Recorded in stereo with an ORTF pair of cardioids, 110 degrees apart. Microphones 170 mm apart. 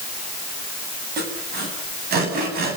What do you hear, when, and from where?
1.2 s sawing: 65° right, 8.5 m